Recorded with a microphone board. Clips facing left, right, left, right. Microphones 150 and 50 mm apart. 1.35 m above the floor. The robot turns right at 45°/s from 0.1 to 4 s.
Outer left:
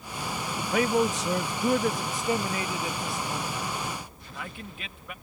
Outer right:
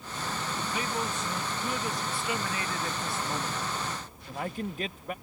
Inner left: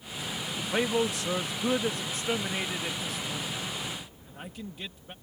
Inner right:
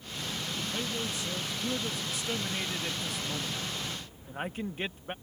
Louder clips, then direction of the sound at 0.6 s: Outer left 11 dB, inner left 10 dB; 65° left.